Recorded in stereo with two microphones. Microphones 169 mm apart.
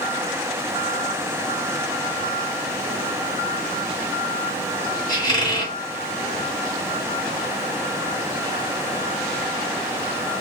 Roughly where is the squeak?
Left.